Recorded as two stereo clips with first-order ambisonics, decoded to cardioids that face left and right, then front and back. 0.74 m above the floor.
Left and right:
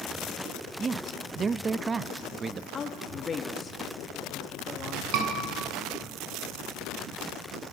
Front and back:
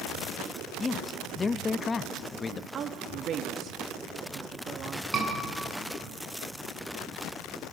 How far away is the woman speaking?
About 1.0 m.